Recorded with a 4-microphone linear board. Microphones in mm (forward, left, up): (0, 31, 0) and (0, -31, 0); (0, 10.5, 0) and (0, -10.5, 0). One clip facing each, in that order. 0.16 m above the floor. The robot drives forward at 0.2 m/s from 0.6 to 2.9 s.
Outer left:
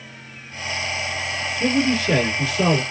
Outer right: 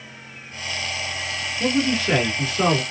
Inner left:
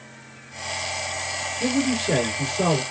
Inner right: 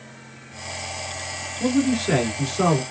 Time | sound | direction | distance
1.6 | a man speaking | 35° right (ahead or behind) | 1.3 m